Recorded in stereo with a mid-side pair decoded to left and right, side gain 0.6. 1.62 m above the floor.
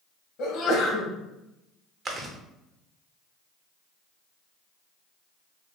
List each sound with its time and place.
0.4 s a sneeze: 65° left, 1.0 m
2.0 s chewing: 30° right, 0.7 m